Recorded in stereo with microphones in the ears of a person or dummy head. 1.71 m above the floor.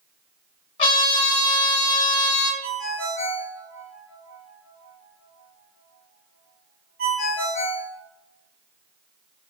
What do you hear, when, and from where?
0.8 s a trumpet: 30° left (ahead or behind), 1.1 m
2.6 s a ringtone: 60° right (ahead or behind), 1.3 m